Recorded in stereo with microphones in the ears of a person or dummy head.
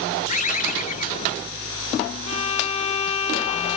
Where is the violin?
40° left (ahead or behind), 1.2 m.